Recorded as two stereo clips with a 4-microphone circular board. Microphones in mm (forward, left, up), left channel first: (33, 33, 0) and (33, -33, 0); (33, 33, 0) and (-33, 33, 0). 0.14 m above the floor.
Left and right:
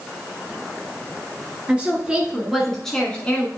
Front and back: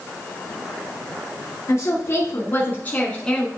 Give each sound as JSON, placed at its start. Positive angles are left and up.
{"t": 1.7, "sound": "a woman speaking", "azimuth_deg": -25, "distance_m": 1.6}